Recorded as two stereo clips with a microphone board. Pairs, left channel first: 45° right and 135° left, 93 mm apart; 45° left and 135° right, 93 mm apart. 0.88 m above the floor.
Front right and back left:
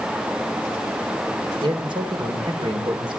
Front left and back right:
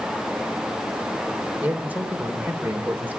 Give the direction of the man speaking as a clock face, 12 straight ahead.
7 o'clock.